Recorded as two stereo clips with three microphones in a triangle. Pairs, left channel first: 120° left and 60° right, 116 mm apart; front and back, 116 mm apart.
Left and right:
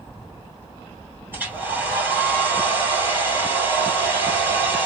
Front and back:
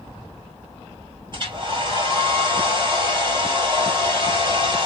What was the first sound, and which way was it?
A hair dryer, 135° right.